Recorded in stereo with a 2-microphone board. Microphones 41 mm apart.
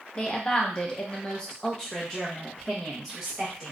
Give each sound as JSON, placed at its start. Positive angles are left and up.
{"t": 0.1, "sound": "a woman speaking", "side_deg": 20, "distance_m": 0.8}